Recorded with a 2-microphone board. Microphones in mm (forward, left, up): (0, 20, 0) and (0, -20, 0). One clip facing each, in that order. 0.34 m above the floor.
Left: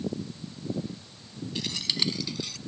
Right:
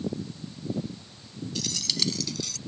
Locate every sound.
1.6 s keys jangling: 25° left (ahead or behind); by 2.6 s 15° left (ahead or behind)